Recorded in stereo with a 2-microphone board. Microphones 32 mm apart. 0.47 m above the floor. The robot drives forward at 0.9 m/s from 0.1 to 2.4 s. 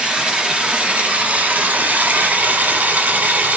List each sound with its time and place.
0.0 s running water: 35° right (ahead or behind), 2 m; by 3.6 s 75° right (ahead or behind), 1.3 m